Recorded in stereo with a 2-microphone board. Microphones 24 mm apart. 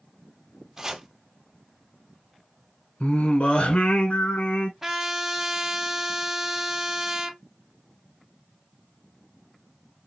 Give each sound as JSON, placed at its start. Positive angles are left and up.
{"t": 0.8, "sound": "chopping", "side_deg": -20, "distance_m": 1.2}
{"t": 3.0, "sound": "singing", "side_deg": 70, "distance_m": 1.2}
{"t": 4.8, "sound": "a trumpet", "side_deg": -10, "distance_m": 1.4}